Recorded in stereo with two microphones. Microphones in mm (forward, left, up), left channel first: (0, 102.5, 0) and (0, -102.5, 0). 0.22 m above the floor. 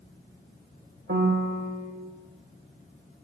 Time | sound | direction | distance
1.1 | a piano | 70° right (ahead or behind) | 1.8 m